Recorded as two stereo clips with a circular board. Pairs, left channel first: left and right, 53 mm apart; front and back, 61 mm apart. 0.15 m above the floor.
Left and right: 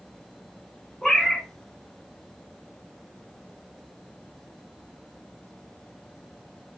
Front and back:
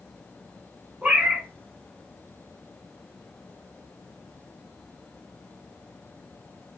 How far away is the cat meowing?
About 0.7 m.